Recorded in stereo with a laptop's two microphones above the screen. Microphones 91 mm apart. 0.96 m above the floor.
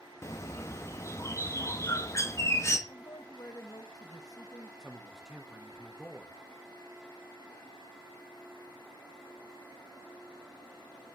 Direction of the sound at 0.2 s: 30° left (ahead or behind).